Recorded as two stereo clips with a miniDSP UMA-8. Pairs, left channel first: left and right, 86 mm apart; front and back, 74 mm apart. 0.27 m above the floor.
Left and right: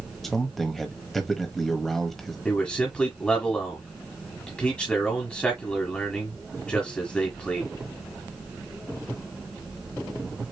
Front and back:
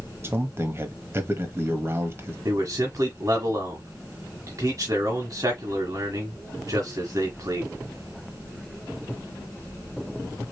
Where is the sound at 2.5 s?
165° left, 1.5 m.